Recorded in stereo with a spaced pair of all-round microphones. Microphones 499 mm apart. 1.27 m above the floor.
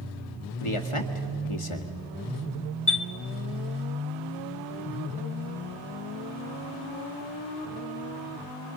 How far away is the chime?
About 1.0 m.